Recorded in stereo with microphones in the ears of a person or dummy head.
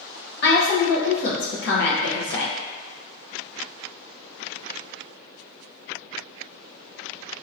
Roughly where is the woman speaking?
Left.